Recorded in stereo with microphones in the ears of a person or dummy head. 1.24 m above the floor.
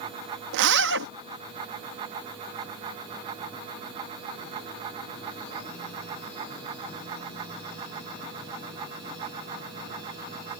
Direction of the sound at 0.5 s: 65° right (ahead or behind).